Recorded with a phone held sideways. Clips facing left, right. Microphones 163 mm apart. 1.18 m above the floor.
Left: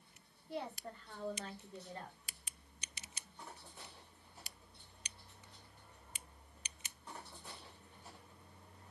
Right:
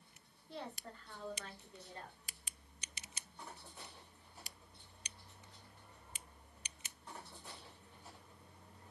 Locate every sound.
0.5 s a woman speaking: 10° left (ahead or behind), 1.3 m; by 2.2 s 50° left (ahead or behind), 1.6 m